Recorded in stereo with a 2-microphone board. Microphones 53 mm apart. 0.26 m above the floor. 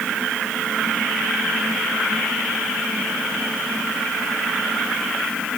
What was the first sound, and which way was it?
Only background noise.